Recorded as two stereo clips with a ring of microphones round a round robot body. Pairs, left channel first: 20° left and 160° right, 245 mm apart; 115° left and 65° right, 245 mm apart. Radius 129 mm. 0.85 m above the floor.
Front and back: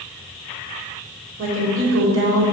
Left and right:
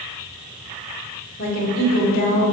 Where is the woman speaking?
165° left, 2 m.